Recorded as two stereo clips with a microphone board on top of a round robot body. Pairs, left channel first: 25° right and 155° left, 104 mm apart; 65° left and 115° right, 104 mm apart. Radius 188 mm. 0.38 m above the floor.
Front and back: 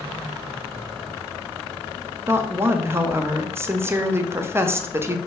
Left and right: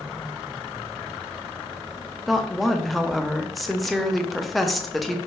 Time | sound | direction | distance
2.3 | a woman speaking | 155° left | 0.8 m